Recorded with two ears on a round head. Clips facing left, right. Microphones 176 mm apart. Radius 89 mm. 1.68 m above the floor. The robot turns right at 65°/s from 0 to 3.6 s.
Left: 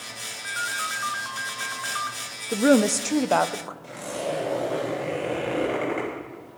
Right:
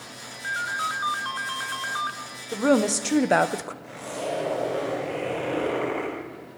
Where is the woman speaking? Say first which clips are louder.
Left 2 dB; 145° left, 0.7 m; by 3.7 s 140° right, 0.7 m.